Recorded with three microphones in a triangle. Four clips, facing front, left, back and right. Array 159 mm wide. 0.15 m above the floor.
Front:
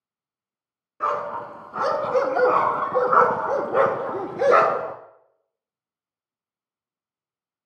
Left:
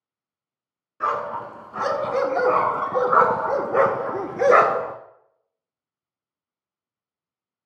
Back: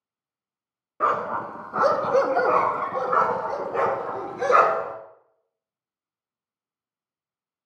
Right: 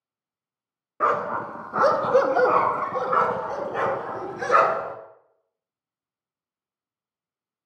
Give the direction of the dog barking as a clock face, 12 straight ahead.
4 o'clock.